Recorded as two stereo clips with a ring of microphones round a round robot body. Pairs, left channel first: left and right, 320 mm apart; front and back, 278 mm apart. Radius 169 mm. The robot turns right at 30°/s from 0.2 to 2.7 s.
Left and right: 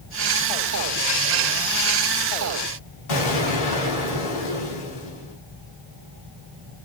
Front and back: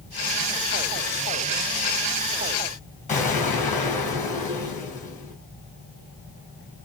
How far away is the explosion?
About 2.5 m.